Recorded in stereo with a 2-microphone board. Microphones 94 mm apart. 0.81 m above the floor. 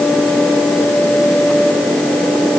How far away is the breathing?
I don't hear breathing.